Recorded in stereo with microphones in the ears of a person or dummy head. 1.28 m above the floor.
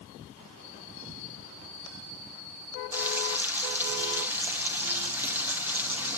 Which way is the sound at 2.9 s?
5° right (ahead or behind).